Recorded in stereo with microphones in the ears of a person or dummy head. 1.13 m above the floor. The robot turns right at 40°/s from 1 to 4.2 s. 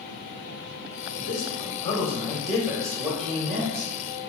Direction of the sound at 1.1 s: 125° left.